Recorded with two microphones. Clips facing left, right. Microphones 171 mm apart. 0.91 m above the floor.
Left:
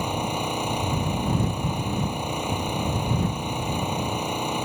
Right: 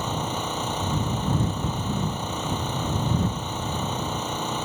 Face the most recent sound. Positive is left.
turn(degrees=10)  # may be behind; listen again after turning